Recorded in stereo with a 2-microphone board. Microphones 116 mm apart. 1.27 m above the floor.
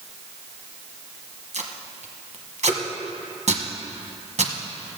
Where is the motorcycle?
No motorcycle in this recording.